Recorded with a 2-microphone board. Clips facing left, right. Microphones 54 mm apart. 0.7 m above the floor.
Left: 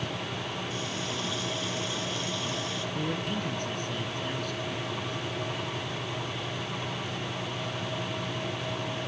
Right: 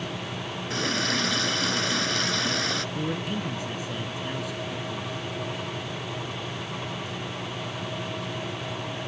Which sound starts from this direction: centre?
A man speaking, at 3.0 s.